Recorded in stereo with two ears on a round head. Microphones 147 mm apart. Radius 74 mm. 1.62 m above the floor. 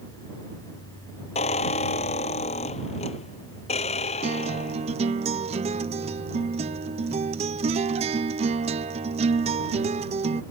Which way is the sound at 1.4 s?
40° left (ahead or behind).